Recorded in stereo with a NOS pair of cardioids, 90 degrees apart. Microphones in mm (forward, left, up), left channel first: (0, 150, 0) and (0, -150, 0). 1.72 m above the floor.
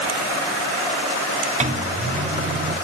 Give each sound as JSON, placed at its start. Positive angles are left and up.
{"t": 1.6, "sound": "a microwave", "azimuth_deg": -25, "distance_m": 1.4}